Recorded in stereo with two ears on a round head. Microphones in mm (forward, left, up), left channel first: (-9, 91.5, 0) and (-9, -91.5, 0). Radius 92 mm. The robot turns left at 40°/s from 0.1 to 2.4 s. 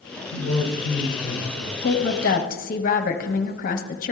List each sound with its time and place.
0.3 s a man speaking: 90° left, 3 m; by 1.7 s 30° left, 3 m
1.8 s a woman speaking: 55° left (ahead or behind), 0.9 m; by 4.1 s 45° left (ahead or behind), 0.9 m